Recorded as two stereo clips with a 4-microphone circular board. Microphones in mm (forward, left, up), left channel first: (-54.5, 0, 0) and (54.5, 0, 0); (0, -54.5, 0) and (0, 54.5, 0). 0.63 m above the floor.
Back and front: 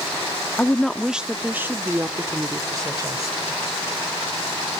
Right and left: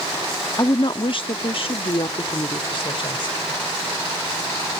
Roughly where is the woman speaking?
Right.